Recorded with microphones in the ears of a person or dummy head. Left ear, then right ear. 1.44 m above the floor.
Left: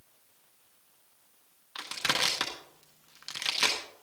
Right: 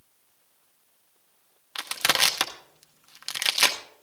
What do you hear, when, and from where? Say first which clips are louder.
1.8 s crushing: right 6 dB; 25° right (ahead or behind), 0.6 m